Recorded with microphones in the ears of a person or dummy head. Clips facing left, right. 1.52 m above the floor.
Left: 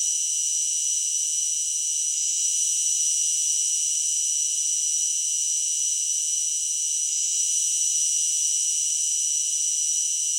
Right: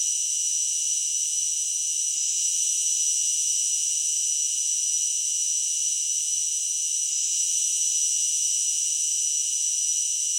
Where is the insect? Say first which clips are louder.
Left 1 dB; 80° left, 1.2 m.